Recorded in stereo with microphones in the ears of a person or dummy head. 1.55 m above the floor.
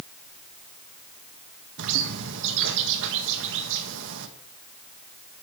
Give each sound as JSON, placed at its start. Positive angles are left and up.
{"t": 1.8, "sound": "a bird", "side_deg": -70, "distance_m": 1.6}